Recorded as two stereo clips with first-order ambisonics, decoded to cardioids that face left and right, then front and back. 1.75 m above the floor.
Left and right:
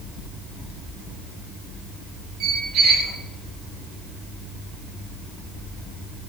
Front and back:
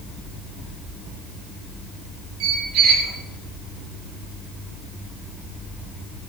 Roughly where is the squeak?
Behind right.